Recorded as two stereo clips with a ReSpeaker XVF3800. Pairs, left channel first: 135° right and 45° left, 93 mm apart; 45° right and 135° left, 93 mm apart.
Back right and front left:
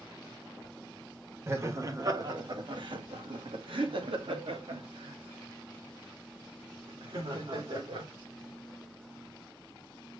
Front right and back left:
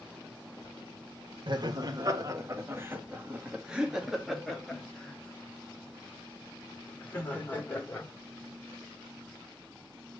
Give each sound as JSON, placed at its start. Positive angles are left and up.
{"t": 1.5, "sound": "laughter", "azimuth_deg": 105, "distance_m": 1.5}